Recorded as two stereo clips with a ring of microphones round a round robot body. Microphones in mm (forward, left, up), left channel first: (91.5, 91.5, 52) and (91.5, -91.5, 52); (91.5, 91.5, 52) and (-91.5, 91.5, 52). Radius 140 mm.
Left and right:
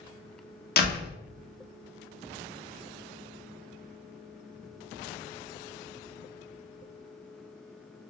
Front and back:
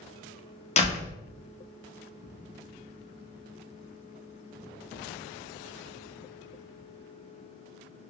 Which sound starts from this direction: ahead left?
A door slam, at 0.8 s.